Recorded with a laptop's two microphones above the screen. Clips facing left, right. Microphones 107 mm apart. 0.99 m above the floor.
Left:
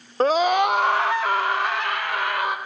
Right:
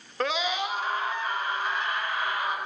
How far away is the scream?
About 1.1 m.